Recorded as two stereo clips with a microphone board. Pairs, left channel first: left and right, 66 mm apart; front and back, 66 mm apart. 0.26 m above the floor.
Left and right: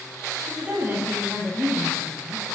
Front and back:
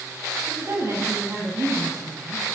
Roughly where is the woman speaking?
Behind right.